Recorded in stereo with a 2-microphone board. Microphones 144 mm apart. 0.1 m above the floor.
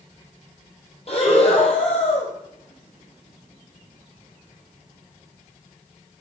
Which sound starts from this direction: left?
Breathing, at 1.1 s.